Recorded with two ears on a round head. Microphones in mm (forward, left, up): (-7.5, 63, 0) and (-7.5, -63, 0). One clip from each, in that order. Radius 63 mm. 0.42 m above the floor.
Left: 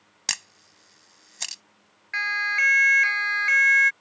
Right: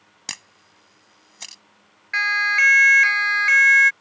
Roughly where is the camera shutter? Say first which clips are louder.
Left 5 dB; left.